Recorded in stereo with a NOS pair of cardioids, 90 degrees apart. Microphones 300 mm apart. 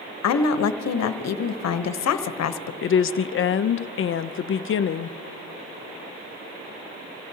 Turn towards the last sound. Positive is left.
turn(degrees=45)